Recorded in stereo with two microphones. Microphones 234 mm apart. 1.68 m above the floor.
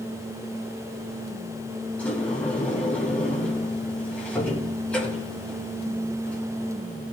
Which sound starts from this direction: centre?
A sliding door, at 2.0 s.